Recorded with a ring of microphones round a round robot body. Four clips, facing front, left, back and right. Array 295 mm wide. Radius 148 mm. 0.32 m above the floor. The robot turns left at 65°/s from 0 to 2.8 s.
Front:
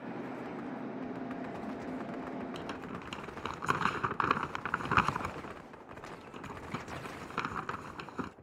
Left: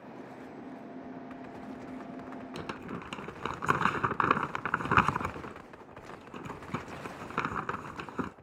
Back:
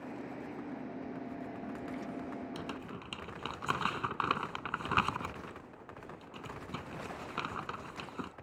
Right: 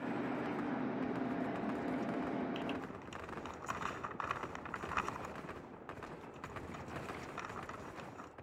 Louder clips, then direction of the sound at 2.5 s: Left 2 dB, front 1 dB; 95° left.